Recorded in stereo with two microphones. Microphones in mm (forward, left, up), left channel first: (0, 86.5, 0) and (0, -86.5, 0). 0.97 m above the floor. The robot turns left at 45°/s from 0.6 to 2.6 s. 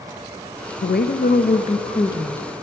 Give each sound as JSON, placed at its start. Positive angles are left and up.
{"t": 0.8, "sound": "a woman speaking", "azimuth_deg": 85, "distance_m": 0.6}